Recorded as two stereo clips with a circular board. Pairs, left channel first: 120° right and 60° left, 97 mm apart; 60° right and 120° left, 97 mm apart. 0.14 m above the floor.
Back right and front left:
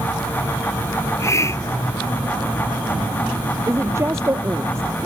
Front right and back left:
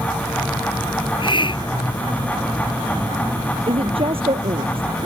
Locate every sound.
1.0 s a hiss: 70° right
3.7 s a woman speaking: 120° left